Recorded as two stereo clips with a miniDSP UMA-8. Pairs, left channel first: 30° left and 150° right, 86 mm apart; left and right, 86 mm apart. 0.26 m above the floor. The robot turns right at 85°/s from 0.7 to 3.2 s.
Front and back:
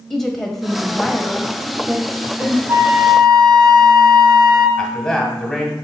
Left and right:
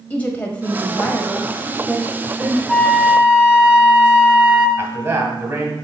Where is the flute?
160° left, 1.0 m; by 4.7 s 155° right, 1.0 m.